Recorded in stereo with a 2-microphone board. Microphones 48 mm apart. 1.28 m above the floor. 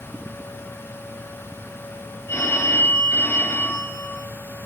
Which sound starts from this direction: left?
A phone ringing, at 2.3 s.